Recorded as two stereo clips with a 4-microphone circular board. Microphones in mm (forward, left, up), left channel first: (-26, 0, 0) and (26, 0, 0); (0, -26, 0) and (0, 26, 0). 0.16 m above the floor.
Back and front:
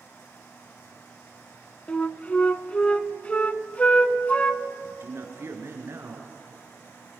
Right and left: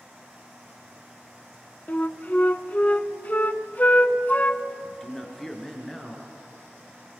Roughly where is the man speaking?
Ahead.